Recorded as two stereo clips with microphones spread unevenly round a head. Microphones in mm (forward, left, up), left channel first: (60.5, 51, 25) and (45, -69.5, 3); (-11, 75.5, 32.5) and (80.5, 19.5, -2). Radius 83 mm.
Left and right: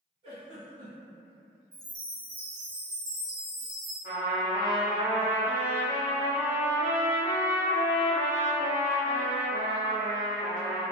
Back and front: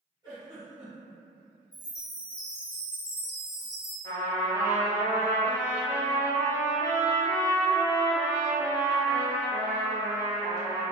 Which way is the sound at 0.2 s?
100° right.